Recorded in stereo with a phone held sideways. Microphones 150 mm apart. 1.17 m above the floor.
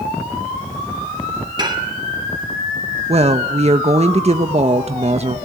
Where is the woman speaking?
45° right (ahead or behind), 0.9 m.